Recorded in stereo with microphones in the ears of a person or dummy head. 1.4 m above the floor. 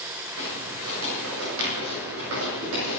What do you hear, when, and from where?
0.4 s footsteps: 70° right (ahead or behind), 7.5 m; by 3.0 s 75° right (ahead or behind), 8.5 m